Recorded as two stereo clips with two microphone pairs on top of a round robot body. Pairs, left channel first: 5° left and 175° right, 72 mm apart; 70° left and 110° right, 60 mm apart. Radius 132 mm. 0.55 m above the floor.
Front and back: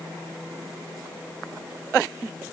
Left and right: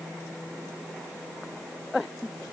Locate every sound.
Only background noise.